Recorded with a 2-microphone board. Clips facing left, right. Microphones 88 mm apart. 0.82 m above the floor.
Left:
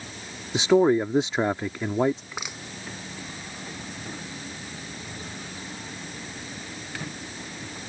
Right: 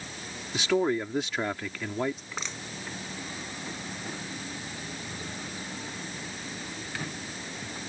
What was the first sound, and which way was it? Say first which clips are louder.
A man speaking: left 7 dB; 25° left (ahead or behind).